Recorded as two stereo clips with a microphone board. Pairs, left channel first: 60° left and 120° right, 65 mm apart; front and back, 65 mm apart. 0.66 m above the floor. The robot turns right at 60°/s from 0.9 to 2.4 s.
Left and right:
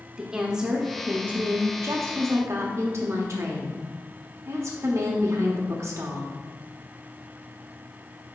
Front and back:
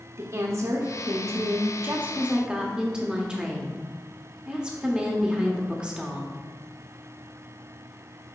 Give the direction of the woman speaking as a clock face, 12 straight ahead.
7 o'clock.